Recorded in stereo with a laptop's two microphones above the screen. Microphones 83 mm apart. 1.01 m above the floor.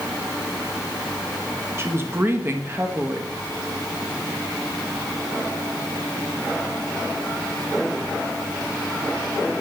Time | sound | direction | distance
1.8 | a woman speaking | 30° right (ahead or behind) | 1.5 m